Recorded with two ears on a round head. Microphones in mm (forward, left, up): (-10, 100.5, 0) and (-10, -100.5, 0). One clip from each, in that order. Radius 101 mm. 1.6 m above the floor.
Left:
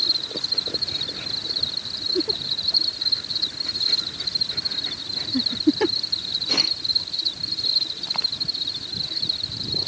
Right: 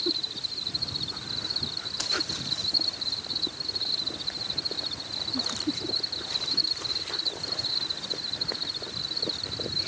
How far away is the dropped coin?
I don't hear a dropped coin.